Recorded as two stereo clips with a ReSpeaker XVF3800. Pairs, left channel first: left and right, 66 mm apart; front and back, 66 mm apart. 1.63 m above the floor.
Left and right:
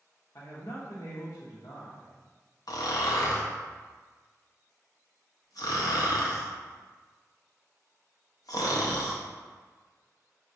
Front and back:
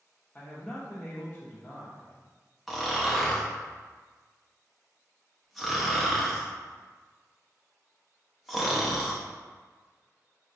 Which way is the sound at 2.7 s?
90° left.